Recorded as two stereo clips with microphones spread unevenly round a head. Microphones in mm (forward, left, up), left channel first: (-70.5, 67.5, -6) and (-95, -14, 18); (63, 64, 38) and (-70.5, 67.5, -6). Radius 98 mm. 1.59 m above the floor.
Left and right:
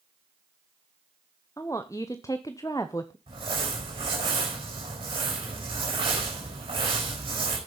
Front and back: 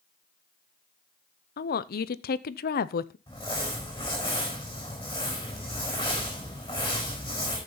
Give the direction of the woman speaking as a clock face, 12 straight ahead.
12 o'clock.